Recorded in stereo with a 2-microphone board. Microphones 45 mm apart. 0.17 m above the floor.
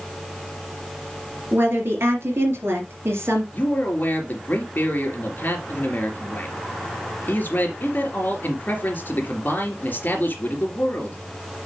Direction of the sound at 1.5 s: 55° right (ahead or behind).